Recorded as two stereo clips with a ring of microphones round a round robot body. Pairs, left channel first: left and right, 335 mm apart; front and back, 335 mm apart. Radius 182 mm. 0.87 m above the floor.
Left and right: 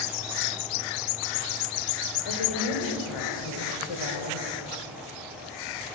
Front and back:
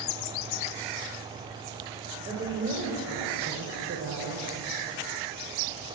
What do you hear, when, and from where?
2.2 s a woman speaking: 105° left, 3.5 m; by 4.6 s 125° left, 3.5 m